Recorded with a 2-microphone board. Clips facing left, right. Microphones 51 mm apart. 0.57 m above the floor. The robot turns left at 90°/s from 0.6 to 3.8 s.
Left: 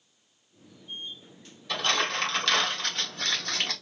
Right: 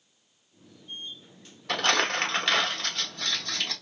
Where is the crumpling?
65° right (ahead or behind), 1.3 m; by 3.7 s 60° left (ahead or behind), 1.3 m.